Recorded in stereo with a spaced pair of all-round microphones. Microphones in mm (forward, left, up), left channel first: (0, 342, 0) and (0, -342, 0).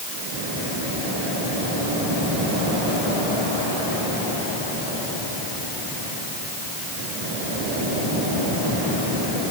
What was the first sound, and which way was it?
Only background noise.